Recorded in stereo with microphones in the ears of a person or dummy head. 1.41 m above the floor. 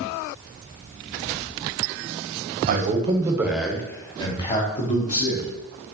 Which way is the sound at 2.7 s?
45° right (ahead or behind).